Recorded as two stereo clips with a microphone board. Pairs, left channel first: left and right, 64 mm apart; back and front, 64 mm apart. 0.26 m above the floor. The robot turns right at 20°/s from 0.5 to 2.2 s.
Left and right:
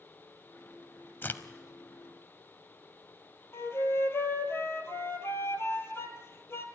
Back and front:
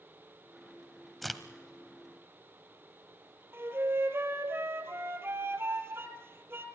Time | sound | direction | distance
1.2 | a crack | 90° left | 0.9 m
3.5 | a flute | 45° left | 1.8 m